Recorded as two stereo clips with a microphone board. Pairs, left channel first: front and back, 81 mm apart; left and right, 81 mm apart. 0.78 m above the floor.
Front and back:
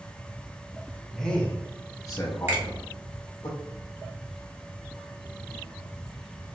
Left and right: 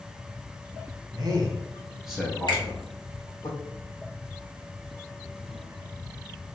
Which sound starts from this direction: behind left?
A finger snap, at 2.5 s.